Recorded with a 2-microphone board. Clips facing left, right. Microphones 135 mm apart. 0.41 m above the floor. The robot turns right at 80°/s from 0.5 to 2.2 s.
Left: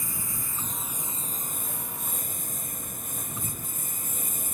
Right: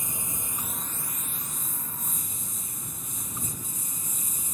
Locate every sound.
0.0 s a lawn mower: 20° right; by 4.5 s 115° left